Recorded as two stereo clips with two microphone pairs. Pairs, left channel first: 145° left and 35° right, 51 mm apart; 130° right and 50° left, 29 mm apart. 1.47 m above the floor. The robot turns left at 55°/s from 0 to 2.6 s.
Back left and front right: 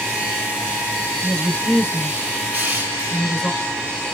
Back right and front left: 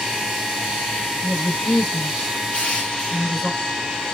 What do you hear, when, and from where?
1.2 s a woman speaking: 135° right, 2 m; by 3.5 s 145° left, 2 m
2.5 s crushing: 90° right, 2 m